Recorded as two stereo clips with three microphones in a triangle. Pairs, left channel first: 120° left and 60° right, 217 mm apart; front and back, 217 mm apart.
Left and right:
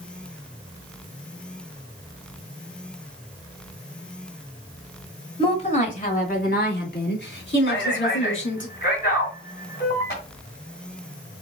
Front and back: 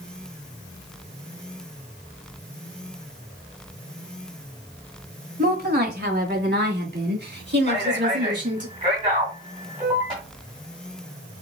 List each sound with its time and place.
5.4 s a woman speaking: 175° left, 1.4 m; by 8.7 s 145° left, 3.5 m
7.7 s a man speaking: 125° left, 2 m